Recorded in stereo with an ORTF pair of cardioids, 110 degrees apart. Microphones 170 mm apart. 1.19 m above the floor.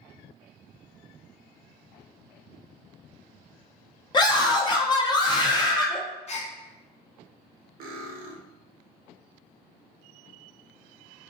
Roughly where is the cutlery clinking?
Ahead right.